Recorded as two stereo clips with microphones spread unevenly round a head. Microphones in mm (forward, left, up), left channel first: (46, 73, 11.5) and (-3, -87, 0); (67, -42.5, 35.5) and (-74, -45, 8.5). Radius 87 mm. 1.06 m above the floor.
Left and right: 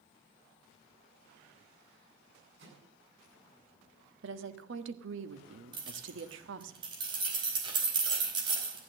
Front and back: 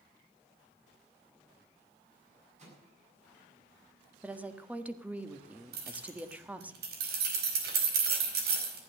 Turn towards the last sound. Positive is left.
turn(degrees=-175)